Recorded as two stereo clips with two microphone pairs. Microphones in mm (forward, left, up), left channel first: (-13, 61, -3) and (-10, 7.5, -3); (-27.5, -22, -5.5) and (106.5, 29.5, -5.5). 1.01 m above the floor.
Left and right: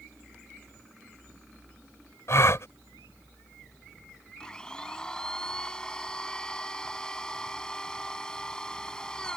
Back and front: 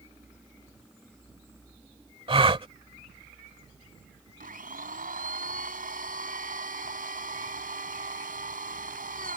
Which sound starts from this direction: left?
A gasp, at 2.3 s.